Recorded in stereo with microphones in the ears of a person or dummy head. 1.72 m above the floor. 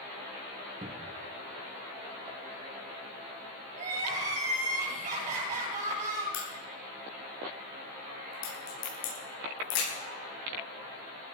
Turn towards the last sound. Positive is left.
turn(degrees=75)  # may be behind; listen again after turning